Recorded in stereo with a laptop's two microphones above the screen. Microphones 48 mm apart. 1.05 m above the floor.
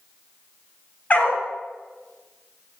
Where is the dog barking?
35° left (ahead or behind), 1.1 m.